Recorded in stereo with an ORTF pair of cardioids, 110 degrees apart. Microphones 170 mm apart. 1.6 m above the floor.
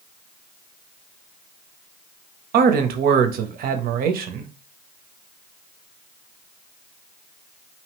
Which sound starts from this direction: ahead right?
A man speaking, at 2.5 s.